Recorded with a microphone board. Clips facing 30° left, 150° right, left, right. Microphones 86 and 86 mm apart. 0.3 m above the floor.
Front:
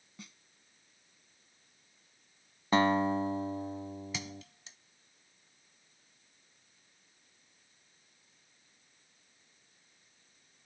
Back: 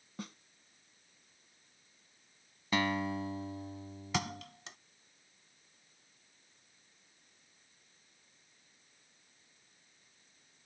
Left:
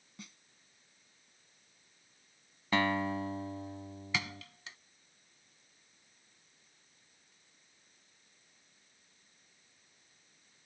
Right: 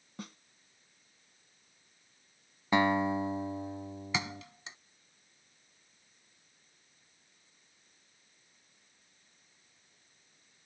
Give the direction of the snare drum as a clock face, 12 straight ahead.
4 o'clock.